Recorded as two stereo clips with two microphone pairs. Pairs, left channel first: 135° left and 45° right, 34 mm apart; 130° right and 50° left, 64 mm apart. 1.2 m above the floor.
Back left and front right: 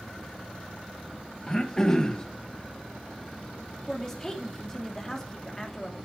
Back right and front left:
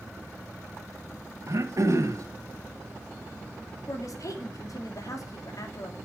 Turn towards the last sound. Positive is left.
turn(degrees=-150)